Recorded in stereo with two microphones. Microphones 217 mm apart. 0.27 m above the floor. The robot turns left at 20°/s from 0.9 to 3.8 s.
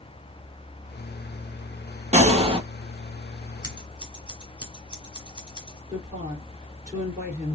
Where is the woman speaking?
10° right (ahead or behind), 4 m.